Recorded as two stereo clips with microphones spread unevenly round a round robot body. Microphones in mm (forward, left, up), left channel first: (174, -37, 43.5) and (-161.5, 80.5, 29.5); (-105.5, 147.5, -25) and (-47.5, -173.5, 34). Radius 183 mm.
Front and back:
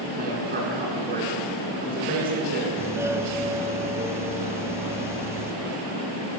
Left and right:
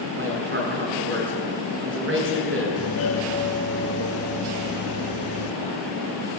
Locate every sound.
0.1 s a man speaking: 130° right, 8.5 m
2.8 s a doorbell: 80° left, 1.4 m